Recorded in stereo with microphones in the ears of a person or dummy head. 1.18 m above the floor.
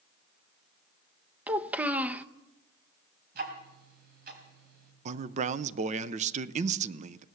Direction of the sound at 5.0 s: 30° right (ahead or behind).